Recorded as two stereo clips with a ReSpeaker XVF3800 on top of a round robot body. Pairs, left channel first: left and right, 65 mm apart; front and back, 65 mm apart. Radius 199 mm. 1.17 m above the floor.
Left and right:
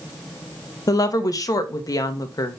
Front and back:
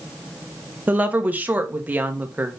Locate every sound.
0.9 s a woman speaking: 115° left, 1.7 m